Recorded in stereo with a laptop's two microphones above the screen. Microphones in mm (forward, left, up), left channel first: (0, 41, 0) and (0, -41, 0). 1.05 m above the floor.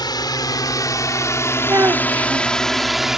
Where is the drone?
60° left (ahead or behind); by 3.2 s 5° right (ahead or behind).